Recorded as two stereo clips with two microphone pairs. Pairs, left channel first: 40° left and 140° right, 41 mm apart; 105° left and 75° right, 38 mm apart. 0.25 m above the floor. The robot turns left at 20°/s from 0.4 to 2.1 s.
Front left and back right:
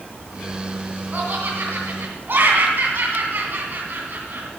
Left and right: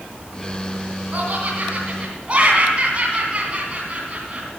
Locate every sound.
1.1 s laughter: 105° right, 2.5 m; by 4.5 s 125° right, 2.5 m